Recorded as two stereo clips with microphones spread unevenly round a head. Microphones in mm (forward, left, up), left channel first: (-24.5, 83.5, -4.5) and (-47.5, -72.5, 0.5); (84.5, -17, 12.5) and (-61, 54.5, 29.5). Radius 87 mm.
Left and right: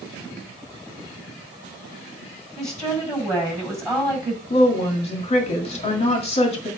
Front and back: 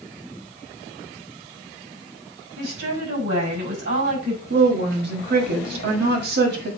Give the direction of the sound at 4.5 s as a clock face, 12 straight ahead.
8 o'clock.